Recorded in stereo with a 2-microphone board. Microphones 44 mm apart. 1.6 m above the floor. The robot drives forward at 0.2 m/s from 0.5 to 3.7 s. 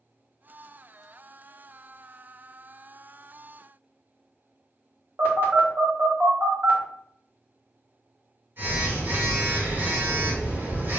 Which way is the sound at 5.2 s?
45° right (ahead or behind).